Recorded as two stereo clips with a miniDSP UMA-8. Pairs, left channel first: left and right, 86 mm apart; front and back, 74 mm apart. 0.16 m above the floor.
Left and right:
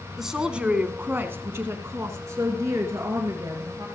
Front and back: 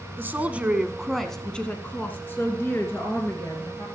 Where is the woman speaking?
175° right, 1.1 m; by 3.9 s 45° right, 2.5 m.